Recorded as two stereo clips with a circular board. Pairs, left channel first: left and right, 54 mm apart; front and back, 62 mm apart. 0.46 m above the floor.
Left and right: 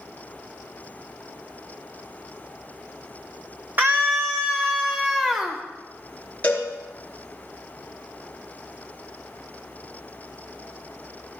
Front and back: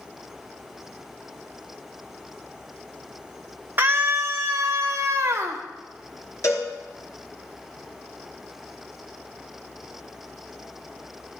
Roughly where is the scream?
Behind right.